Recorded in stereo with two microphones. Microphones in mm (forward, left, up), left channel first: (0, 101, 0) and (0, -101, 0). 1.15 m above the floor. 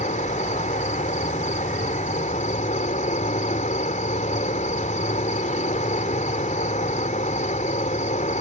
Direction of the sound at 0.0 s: 35° left (ahead or behind).